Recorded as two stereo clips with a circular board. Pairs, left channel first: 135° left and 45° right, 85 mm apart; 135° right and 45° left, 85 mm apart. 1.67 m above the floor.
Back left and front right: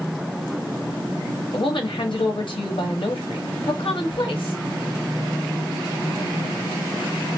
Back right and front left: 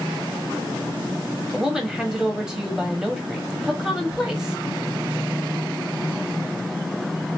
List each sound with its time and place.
1.5 s a woman speaking: 125° left, 1.1 m